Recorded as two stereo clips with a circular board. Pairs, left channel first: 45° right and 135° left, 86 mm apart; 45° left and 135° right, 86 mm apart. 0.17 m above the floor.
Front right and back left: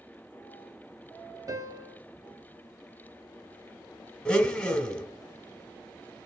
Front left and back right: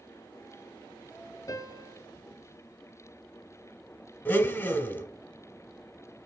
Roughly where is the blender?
Ahead.